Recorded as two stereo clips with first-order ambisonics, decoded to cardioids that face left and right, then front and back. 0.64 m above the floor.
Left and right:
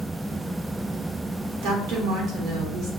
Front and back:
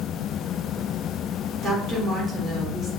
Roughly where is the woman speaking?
Behind right.